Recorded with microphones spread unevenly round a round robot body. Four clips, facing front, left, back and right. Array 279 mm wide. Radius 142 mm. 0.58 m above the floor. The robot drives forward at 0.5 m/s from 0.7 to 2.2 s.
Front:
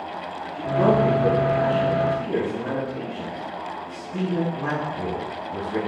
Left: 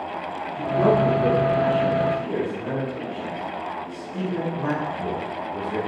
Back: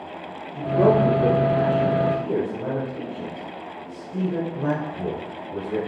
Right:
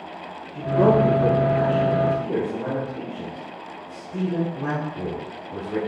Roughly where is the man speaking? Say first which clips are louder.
Right 2 dB, back 1 dB; behind right.